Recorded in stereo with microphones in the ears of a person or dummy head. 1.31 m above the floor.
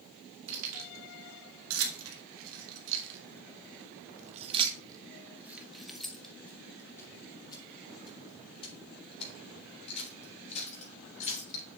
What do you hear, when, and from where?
0.5 s keys jangling: 80° right, 2.5 m; by 11.6 s 35° left (ahead or behind), 4.5 m